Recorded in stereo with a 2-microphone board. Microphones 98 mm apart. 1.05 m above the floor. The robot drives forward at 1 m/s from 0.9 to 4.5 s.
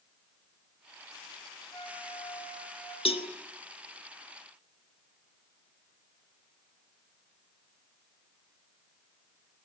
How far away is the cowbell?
About 1.3 m.